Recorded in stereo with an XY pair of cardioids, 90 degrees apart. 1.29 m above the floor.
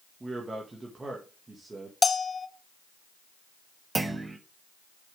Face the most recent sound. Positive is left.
turn(degrees=-25)